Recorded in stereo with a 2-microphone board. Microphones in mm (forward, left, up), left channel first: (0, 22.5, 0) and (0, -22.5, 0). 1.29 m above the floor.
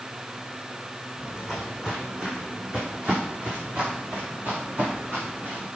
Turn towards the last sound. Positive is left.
turn(degrees=-35)  # may be behind; listen again after turning